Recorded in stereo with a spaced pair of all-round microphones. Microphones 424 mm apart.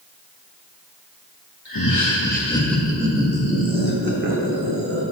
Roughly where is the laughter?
Left.